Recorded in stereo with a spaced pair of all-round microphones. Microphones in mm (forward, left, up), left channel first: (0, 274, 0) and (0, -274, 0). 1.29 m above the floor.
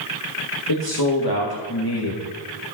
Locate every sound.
0.7 s a man speaking: 40° left (ahead or behind), 1.5 m